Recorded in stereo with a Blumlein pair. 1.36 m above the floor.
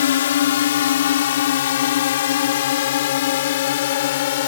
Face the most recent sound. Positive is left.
turn(degrees=55)